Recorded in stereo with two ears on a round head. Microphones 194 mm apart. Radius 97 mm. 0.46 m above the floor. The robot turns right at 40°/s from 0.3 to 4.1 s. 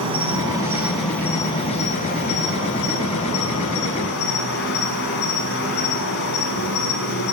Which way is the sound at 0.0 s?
25° right.